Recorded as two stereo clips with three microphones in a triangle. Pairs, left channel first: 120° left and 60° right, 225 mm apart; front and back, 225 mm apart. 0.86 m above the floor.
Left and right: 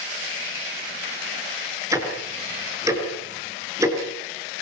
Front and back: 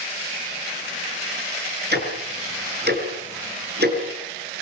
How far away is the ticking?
About 6 m.